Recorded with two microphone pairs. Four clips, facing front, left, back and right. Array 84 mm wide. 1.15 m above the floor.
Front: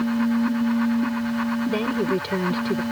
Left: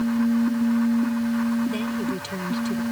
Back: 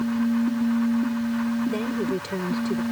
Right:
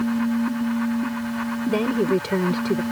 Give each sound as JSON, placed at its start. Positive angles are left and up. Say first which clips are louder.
{"t": 1.7, "sound": "a woman speaking", "louder": "right 6 dB, front 3 dB", "azimuth_deg": -80}